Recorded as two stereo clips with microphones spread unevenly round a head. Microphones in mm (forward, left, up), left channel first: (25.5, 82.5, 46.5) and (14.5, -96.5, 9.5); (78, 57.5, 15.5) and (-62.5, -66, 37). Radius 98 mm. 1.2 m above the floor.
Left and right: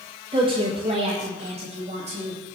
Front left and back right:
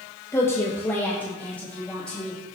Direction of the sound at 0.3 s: 35° right.